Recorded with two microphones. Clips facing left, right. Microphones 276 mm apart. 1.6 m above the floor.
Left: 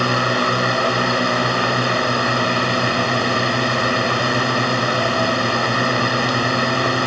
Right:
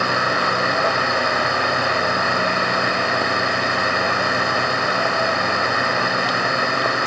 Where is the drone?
40° left (ahead or behind).